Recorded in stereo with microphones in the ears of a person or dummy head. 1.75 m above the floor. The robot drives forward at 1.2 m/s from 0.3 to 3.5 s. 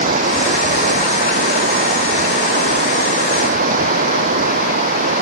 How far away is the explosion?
No explosion in this recording.